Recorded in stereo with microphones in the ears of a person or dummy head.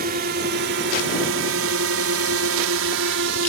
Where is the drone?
50° right (ahead or behind); by 3.5 s 65° right (ahead or behind).